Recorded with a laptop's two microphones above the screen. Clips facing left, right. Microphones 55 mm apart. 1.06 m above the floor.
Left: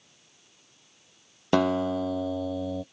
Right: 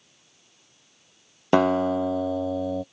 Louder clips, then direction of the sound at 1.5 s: Right 4 dB; 20° right (ahead or behind).